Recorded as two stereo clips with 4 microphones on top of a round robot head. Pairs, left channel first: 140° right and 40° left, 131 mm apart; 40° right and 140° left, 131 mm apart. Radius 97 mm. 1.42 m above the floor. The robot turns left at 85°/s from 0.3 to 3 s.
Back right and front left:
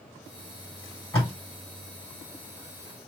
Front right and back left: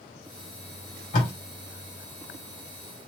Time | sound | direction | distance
1.1 | tape being pulled | 65° right | 2 m